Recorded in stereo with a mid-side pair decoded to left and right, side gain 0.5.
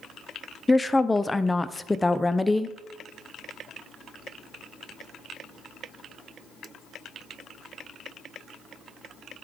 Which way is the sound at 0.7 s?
15° left.